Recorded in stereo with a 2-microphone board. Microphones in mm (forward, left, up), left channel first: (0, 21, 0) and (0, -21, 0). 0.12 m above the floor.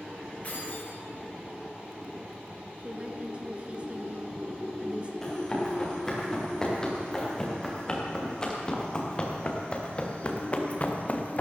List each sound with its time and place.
0.4 s keys jangling: 40° left (ahead or behind), 5 m
2.8 s a woman speaking: 30° right (ahead or behind), 1.4 m
5.2 s running footsteps: 15° left (ahead or behind), 5.5 m; by 11.4 s 40° left (ahead or behind), 1.9 m